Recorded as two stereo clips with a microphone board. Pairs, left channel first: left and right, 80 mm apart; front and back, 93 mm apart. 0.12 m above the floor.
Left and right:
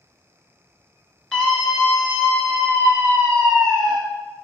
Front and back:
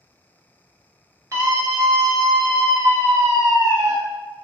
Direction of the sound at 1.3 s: 165° left.